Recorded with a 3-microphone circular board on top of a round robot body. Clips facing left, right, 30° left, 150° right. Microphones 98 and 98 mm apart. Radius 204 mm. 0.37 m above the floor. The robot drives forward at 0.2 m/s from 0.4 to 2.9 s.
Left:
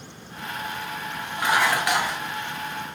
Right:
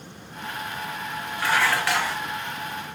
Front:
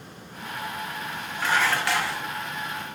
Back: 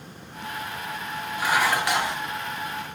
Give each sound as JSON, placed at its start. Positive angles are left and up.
{"t": 1.4, "sound": "dishes clattering", "azimuth_deg": 140, "distance_m": 0.8}